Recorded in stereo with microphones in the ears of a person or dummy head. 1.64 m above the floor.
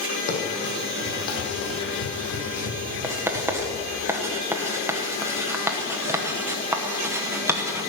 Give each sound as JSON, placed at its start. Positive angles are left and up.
{"t": 0.3, "sound": "running footsteps", "side_deg": 45, "distance_m": 3.5}
{"t": 3.0, "sound": "writing", "side_deg": -10, "distance_m": 1.1}